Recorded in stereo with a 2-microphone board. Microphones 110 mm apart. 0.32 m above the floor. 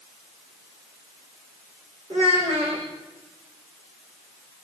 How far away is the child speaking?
About 10 m.